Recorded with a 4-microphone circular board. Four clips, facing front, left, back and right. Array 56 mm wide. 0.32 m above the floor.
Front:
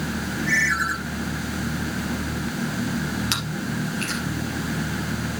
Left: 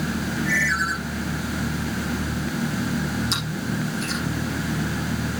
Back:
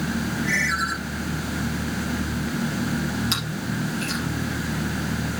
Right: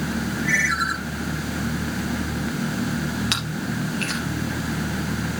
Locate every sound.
0.4 s a ringtone: 100° right, 6.5 m
3.3 s chewing: 70° right, 3 m